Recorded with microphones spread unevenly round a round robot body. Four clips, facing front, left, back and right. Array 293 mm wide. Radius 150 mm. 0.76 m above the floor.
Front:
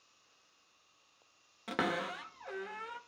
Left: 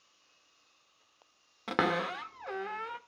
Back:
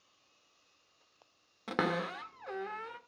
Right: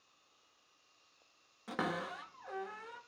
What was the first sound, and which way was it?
A cupboard door, 105° left.